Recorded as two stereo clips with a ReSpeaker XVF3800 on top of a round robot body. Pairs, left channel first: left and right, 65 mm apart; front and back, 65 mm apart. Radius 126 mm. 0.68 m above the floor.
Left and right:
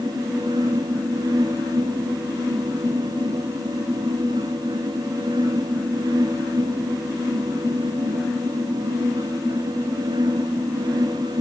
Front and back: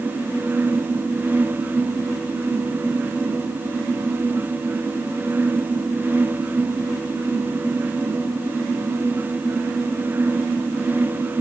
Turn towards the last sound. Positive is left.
No sound to turn to.